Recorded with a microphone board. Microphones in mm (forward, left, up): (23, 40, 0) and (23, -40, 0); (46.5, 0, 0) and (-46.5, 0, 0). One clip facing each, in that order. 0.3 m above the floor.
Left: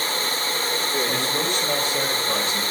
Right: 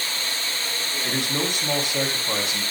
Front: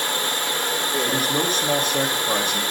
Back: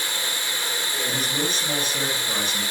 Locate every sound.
0.0 s running water: 40° left, 1.2 m
1.0 s a man speaking: 20° right, 2.5 m